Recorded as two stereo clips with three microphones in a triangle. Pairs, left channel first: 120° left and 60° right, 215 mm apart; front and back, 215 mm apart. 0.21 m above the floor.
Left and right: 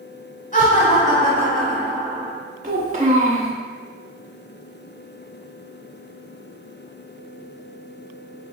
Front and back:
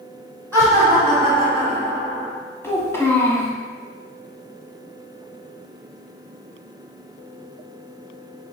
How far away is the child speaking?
About 1.3 m.